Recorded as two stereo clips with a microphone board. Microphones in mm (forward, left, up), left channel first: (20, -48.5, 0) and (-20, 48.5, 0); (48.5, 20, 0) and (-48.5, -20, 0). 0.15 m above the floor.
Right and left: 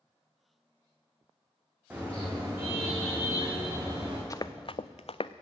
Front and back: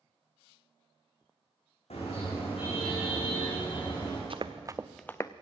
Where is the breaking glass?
I don't hear breaking glass.